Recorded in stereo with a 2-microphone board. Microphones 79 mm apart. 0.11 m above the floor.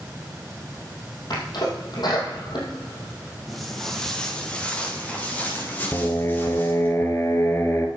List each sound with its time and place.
1.3 s a sneeze: 65° left (ahead or behind), 3.5 m
3.5 s footsteps: centre (ahead or behind), 2.5 m; by 6.9 s 30° left (ahead or behind), 5 m
5.9 s singing: 35° left (ahead or behind), 1.6 m